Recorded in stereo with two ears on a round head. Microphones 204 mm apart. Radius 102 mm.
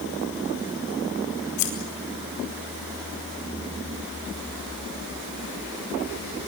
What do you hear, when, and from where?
1.6 s scissors: 85° left, 5 m